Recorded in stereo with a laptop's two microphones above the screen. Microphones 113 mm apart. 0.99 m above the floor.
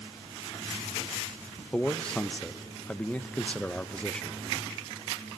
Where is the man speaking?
10° left (ahead or behind), 0.7 m.